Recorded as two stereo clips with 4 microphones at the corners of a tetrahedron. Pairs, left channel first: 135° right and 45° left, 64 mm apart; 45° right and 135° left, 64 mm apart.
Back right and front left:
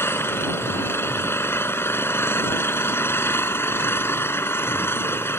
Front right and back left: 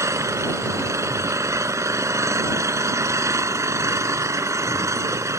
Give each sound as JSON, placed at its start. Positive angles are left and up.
{"t": 0.0, "sound": "an engine running", "azimuth_deg": 170}